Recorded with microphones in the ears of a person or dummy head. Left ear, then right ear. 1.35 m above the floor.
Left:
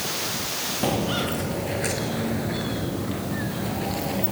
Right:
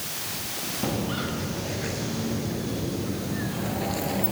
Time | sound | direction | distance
0.8 | footsteps | 25° left (ahead or behind) | 2 m